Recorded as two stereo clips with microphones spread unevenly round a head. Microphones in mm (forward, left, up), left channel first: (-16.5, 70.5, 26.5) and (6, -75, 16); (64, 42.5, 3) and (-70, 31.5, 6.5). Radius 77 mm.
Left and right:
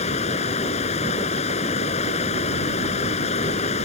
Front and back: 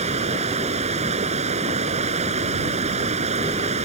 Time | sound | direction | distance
0.0 | running water | 145° left | ?